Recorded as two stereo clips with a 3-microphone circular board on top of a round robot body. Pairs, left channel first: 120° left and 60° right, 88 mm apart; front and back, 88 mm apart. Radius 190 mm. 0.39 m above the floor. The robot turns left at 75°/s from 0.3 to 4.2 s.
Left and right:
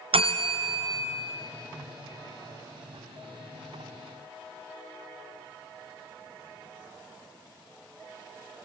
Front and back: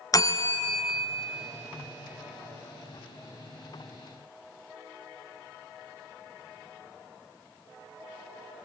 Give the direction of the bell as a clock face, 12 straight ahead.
2 o'clock.